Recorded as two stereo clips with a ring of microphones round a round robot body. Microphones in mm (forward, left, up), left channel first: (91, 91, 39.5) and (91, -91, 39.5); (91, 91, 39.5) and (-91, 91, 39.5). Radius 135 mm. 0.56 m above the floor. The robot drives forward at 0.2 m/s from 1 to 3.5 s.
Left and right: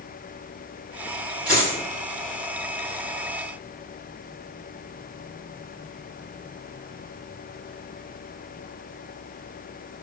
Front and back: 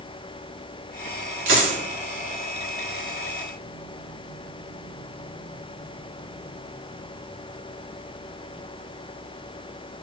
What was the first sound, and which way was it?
A dropped coin, 175° right.